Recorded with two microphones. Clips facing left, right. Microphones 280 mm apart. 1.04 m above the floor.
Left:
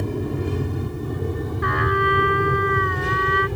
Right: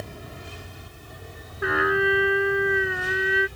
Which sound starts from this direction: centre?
A trumpet, at 1.6 s.